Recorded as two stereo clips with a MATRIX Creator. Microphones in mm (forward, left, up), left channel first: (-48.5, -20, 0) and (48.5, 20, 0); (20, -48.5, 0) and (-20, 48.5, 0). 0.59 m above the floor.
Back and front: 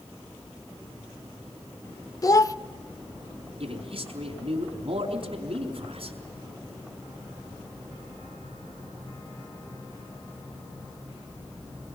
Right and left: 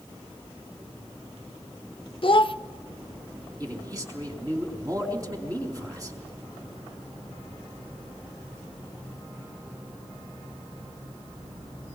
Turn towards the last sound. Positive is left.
turn(degrees=55)